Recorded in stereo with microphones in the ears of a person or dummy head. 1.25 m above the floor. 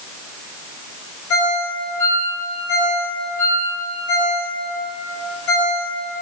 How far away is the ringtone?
About 3 m.